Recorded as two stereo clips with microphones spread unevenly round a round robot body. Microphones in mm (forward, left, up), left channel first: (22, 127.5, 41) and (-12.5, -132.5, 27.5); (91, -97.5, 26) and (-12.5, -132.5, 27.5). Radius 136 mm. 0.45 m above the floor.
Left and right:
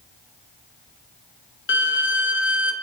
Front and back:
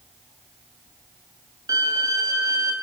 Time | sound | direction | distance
1.7 | a violin | 130° left | 2.5 m